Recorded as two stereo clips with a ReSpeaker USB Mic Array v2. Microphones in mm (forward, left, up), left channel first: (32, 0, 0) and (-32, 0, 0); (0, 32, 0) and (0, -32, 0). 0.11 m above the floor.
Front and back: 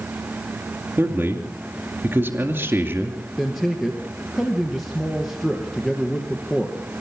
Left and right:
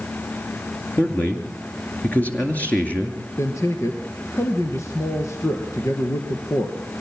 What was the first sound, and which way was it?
A man speaking, 140° left.